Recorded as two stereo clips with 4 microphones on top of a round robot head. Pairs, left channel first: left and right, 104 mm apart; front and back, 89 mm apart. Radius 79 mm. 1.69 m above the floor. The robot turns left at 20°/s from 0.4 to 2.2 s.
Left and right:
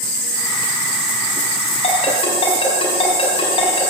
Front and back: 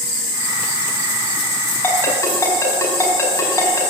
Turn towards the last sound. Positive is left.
turn(degrees=60)